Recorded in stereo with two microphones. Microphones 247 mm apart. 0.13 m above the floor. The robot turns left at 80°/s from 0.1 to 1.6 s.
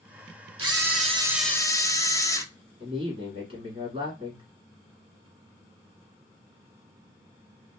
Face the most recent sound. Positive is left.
turn(degrees=-25)  # may be behind; listen again after turning